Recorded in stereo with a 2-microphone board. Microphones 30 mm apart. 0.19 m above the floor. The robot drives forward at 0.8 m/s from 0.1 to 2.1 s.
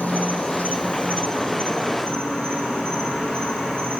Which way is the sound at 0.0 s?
80° left.